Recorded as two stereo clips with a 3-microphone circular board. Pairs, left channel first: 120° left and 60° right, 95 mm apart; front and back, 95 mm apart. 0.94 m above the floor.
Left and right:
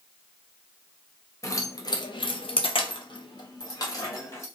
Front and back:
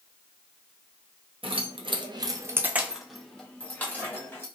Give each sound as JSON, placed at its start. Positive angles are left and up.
{"t": 1.4, "sound": "keys jangling", "azimuth_deg": 175, "distance_m": 0.7}